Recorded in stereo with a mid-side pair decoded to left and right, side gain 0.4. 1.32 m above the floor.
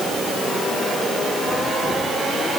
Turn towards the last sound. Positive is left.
No sound to turn to.